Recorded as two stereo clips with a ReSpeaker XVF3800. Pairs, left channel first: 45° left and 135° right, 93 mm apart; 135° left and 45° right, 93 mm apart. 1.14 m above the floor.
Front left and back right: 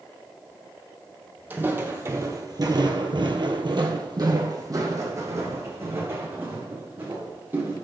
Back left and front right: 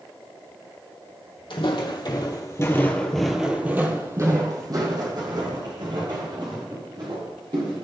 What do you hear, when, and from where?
1.5 s footsteps: 155° left, 3 m; by 7.8 s 70° right, 7 m